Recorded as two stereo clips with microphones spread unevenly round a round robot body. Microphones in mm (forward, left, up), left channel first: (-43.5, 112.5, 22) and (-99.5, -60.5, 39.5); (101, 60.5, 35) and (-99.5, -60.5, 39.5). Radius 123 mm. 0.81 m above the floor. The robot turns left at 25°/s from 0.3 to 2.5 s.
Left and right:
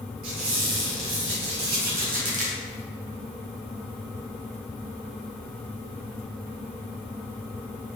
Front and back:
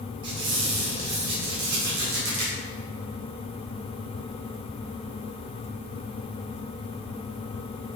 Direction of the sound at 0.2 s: 105° right.